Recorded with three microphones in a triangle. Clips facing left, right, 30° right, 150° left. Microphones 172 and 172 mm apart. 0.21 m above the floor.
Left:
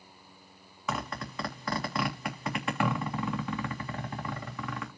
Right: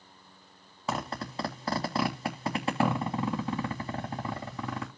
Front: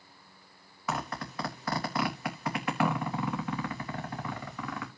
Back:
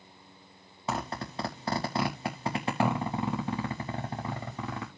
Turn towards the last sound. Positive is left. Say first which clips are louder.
# right 2 dB, back 1 dB
turn(degrees=-145)